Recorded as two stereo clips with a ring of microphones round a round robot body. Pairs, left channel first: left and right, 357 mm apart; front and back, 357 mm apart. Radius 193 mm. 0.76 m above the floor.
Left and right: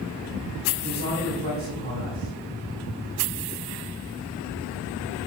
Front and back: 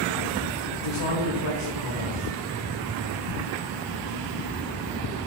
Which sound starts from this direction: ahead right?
A man speaking, at 0.7 s.